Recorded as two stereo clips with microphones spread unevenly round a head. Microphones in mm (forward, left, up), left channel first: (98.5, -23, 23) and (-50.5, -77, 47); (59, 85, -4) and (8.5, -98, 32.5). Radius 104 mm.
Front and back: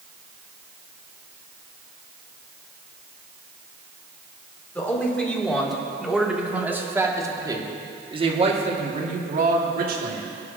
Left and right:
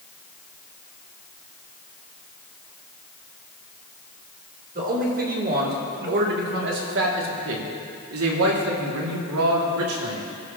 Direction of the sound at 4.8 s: 60° right.